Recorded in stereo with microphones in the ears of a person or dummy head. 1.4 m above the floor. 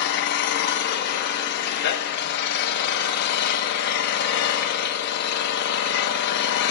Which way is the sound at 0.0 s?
55° left (ahead or behind).